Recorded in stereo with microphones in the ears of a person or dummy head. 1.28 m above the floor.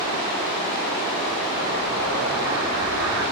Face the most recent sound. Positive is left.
turn(degrees=-85)